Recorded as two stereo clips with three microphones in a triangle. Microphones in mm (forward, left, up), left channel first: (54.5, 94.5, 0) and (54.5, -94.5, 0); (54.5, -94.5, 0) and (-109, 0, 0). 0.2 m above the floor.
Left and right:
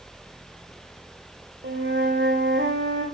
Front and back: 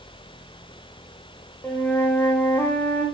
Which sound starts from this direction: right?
A flute, at 1.6 s.